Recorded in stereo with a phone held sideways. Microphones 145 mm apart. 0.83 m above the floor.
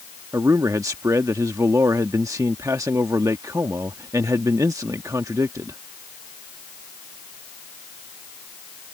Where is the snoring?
I don't hear snoring.